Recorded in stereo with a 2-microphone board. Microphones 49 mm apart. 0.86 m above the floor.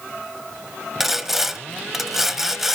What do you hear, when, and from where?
1.0 s sawing: 5° right (ahead or behind), 0.9 m